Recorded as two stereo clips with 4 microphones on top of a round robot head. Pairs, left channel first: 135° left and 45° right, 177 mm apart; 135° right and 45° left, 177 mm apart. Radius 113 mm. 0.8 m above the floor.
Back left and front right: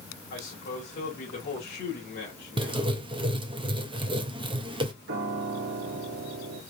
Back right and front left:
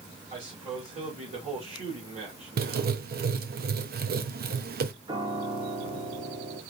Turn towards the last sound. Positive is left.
turn(degrees=-20)